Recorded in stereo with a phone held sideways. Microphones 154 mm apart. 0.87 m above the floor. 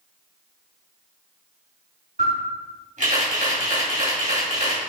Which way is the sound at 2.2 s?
55° right (ahead or behind).